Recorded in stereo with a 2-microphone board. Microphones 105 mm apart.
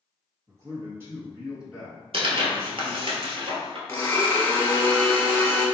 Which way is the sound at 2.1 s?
55° right (ahead or behind).